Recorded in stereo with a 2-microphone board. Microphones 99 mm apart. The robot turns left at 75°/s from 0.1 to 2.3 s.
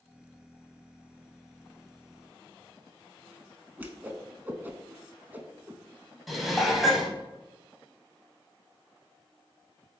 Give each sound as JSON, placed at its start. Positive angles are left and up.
{"t": 3.8, "sound": "a whoosh", "side_deg": -20, "distance_m": 0.5}
{"t": 6.3, "sound": "dishes clattering", "side_deg": 0, "distance_m": 0.8}